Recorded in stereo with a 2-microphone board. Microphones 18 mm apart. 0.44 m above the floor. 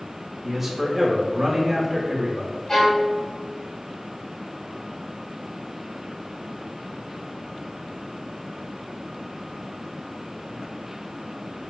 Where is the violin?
35° left (ahead or behind), 1.3 m.